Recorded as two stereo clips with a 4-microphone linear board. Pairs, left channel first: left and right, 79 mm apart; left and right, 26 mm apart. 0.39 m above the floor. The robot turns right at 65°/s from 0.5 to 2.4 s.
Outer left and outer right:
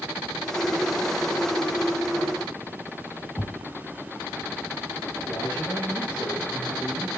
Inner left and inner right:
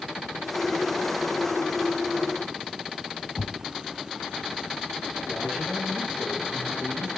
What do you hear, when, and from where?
3.4 s a thud: 35° left (ahead or behind), 1.0 m
5.2 s a man speaking: 80° right, 5.5 m